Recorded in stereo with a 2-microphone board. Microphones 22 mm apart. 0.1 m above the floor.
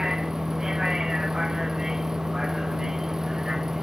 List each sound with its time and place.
0.0 s a vehicle: 25° right (ahead or behind)